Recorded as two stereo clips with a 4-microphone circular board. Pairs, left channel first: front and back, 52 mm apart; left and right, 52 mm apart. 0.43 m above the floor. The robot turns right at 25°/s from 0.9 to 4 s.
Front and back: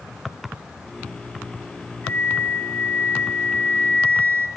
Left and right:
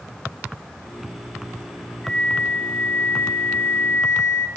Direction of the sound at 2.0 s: 15° left.